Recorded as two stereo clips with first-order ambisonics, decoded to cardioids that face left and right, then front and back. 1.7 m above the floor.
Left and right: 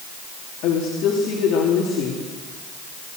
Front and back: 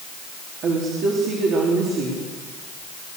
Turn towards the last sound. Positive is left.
turn(degrees=135)